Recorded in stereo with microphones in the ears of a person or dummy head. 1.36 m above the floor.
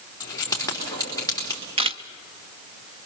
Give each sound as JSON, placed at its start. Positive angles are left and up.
{"t": 0.2, "sound": "keys jangling", "side_deg": 25, "distance_m": 3.0}
{"t": 1.8, "sound": "a camera shutter", "side_deg": -25, "distance_m": 0.5}